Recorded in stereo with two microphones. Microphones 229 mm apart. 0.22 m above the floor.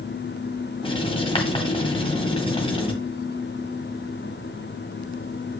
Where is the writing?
25° left (ahead or behind), 1.6 m.